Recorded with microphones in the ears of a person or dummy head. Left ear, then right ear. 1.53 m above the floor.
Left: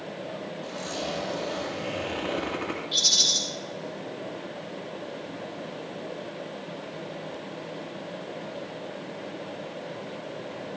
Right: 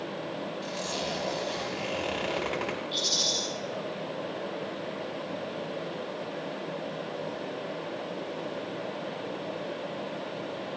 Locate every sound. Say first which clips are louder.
0.6 s a zipper: left 1 dB; 65° right (ahead or behind), 5 m
2.9 s a rattle: left 7 dB; 5° left (ahead or behind), 5.5 m